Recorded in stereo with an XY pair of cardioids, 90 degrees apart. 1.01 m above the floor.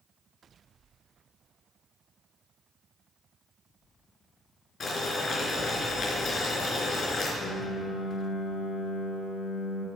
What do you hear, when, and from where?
4.8 s boiling: 50° left, 3.5 m
7.4 s a piano: 60° left, 1.3 m